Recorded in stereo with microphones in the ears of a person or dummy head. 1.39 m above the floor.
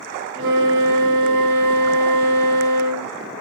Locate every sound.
0.3 s a flute: 45° right (ahead or behind), 1.3 m